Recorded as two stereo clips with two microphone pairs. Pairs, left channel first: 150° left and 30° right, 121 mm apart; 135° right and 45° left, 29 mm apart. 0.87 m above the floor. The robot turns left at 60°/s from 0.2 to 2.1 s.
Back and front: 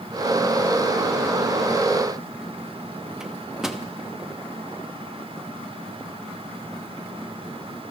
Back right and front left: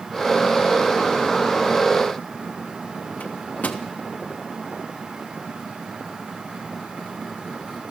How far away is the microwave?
About 1.2 m.